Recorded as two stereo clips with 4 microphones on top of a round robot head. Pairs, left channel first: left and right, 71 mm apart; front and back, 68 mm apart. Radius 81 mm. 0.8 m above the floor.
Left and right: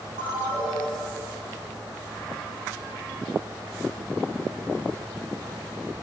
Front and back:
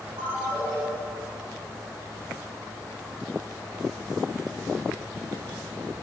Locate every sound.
0.2 s a ringtone: 110° right, 2.5 m